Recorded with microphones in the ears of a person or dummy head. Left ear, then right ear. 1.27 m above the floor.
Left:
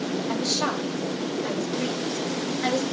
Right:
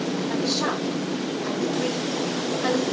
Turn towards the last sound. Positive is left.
turn(degrees=80)